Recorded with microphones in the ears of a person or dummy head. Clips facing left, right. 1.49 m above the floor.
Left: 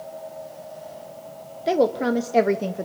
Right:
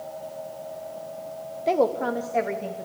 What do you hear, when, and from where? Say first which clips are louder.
1.7 s a woman speaking: left 2 dB; 10° left (ahead or behind), 0.9 m; by 2.9 s 75° left (ahead or behind), 0.9 m